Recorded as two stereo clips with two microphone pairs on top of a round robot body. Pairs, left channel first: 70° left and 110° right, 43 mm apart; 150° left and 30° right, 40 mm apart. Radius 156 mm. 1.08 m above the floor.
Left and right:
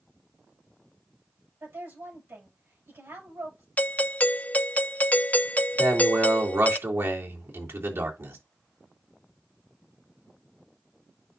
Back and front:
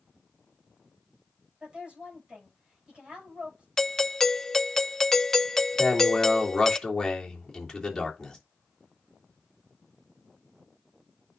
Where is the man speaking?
125° right, 3 m.